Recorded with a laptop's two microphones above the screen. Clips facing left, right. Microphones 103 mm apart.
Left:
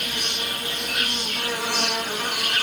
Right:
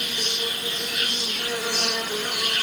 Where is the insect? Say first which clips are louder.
Even; 55° left (ahead or behind), 2.5 m.